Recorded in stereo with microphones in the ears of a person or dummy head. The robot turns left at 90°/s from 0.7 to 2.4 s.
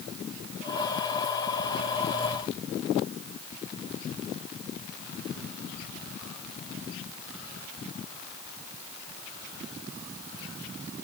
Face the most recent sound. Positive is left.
No sound to turn to.